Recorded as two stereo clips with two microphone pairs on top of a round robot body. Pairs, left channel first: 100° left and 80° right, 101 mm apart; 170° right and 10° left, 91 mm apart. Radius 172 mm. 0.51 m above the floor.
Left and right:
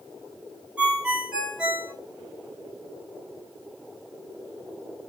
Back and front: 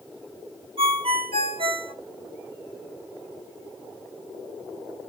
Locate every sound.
0.8 s a ringtone: straight ahead, 2.5 m